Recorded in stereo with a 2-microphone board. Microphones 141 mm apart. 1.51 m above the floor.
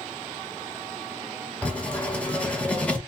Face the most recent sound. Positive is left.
turn(degrees=10)  # may be behind; listen again after turning